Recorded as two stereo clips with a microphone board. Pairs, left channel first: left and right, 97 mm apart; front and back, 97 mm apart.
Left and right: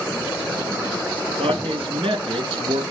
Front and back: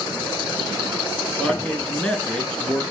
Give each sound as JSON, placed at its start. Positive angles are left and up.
{"t": 1.4, "sound": "a man speaking", "azimuth_deg": -80, "distance_m": 3.5}